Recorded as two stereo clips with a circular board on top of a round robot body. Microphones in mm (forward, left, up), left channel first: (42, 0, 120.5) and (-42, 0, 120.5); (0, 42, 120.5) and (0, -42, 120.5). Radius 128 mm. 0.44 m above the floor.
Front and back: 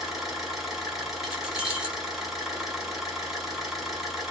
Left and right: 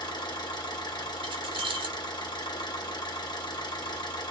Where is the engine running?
95° left, 1.5 m.